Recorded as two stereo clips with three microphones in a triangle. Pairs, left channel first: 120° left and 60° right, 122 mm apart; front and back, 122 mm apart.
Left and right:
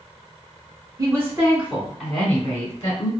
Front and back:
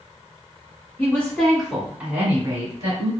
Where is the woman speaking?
50° right, 1.3 m; by 3.1 s 165° left, 1.4 m.